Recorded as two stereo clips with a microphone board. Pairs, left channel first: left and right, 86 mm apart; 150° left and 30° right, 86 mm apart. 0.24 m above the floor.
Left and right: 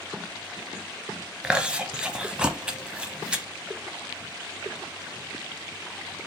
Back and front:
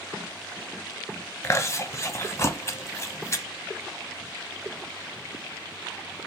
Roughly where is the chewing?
Behind.